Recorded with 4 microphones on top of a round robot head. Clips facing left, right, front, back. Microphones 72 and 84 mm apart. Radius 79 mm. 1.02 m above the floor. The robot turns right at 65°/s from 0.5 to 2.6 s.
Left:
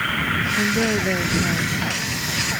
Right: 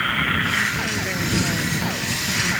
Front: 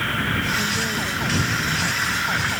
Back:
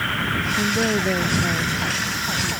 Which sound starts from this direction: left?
A woman speaking, at 0.6 s.